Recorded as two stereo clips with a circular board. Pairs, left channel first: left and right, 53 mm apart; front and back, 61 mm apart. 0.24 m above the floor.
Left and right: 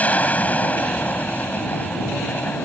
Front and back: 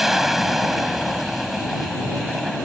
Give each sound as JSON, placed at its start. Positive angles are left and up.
{"t": 0.0, "sound": "an aircraft", "azimuth_deg": 100}